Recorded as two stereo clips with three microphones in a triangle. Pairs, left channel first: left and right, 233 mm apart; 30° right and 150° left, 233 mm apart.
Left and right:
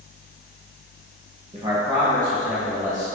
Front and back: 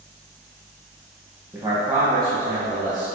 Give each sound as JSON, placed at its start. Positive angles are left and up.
{"t": 1.5, "sound": "a man speaking", "azimuth_deg": -135, "distance_m": 0.9}